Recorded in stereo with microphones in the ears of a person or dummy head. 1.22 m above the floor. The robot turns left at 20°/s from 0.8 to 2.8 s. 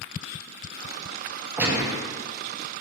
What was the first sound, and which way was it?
A gunshot, 10° right (ahead or behind).